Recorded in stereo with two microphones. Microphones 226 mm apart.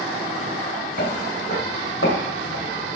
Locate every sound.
1.0 s footsteps: 50° left (ahead or behind), 3 m; by 3.0 s 60° left (ahead or behind), 2 m